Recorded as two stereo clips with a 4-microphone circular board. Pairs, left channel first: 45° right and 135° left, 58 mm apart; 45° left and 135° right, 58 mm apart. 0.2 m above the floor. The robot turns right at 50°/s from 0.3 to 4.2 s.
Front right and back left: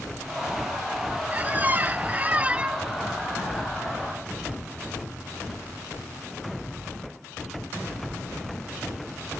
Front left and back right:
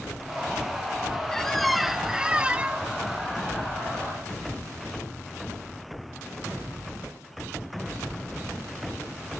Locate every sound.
1.3 s a squeak: 115° left, 0.5 m; by 2.9 s 170° right, 0.5 m